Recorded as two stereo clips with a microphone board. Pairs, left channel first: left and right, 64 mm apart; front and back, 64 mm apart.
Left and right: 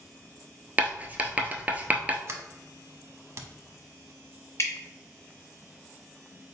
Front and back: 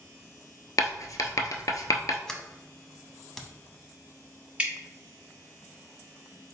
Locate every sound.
0.8 s writing: 25° right, 0.6 m
2.3 s a sliding door: 80° right, 0.6 m
4.6 s dripping: 115° left, 1.8 m